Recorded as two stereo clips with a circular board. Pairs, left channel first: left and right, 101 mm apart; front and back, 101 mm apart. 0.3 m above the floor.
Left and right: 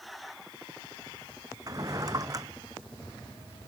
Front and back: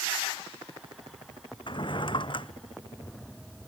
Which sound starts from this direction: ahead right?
A drawer, at 1.7 s.